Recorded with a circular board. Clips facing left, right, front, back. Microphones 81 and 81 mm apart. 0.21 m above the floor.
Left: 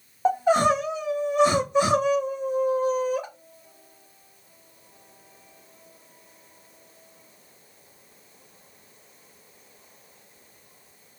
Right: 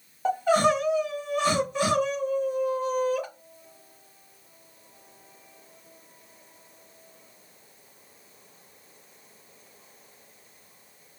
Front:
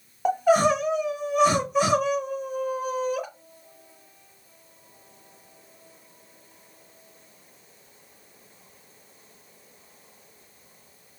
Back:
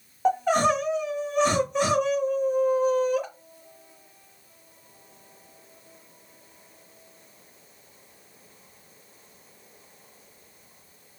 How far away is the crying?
About 1.1 m.